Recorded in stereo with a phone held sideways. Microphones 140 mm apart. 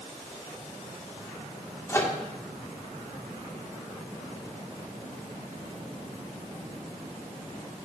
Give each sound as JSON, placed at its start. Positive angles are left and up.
{"t": 1.9, "sound": "a microwave", "side_deg": 20, "distance_m": 3.0}